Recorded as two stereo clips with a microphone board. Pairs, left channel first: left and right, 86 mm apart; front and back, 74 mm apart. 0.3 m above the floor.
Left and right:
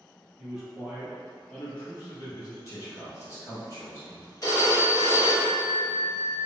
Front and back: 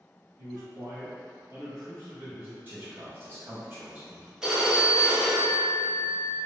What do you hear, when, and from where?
0.4 s a man speaking: 175° right, 1.7 m; by 2.5 s 125° left, 1.8 m
2.6 s a man speaking: 130° left, 1.3 m
4.4 s a phone ringing: 100° left, 0.7 m